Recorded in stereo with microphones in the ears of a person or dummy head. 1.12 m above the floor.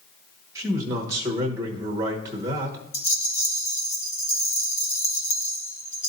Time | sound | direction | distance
0.6 | a man speaking | 15° right (ahead or behind) | 1.1 m
2.9 | a rattle | 20° left (ahead or behind) | 1.1 m